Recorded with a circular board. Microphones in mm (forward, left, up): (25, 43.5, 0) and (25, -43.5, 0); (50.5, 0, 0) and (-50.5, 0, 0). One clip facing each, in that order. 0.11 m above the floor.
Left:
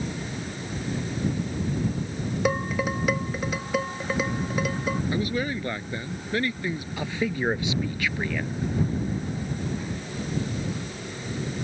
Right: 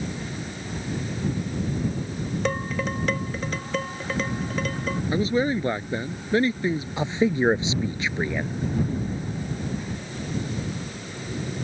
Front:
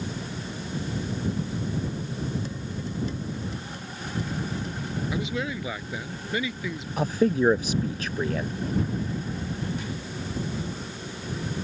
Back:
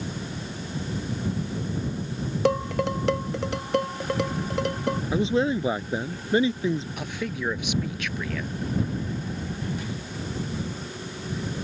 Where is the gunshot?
No gunshot in this recording.